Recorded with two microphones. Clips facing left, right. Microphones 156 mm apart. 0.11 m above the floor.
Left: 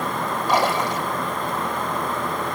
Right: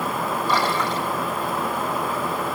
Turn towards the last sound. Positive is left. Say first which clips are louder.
# left 4 dB
turn(degrees=15)  # may be behind; listen again after turning